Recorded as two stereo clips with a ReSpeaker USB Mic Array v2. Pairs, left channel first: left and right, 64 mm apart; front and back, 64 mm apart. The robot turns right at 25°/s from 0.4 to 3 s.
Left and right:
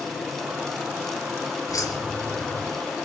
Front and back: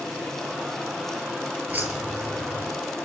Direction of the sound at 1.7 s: 115° left.